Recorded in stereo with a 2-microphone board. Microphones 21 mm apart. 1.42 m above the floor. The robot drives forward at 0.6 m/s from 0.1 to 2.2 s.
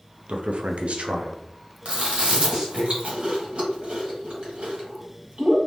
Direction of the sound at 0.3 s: 55° right (ahead or behind).